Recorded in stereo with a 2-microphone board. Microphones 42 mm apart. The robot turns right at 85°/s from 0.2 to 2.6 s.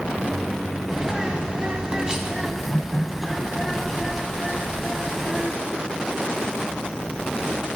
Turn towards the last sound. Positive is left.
turn(degrees=0)  # may be behind; listen again after turning